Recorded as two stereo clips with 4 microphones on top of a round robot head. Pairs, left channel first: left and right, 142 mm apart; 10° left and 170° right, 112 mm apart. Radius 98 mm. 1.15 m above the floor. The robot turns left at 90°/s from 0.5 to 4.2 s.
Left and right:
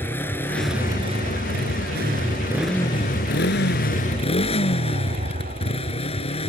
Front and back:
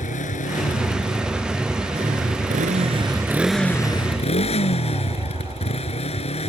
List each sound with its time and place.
0.0 s a motorcycle: 15° left; by 6.5 s 40° left